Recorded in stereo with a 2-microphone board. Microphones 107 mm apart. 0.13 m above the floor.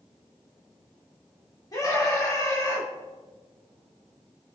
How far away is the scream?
About 8 m.